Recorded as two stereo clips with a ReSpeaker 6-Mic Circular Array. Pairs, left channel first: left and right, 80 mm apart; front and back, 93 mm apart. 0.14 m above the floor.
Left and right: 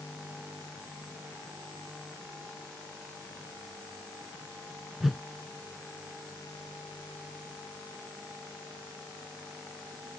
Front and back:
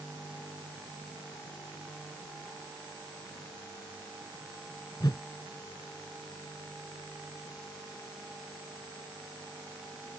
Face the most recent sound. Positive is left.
turn(degrees=0)